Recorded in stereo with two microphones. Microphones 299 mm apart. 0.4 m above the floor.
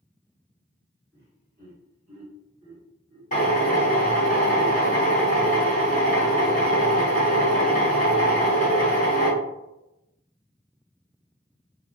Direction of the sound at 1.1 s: 35° right (ahead or behind).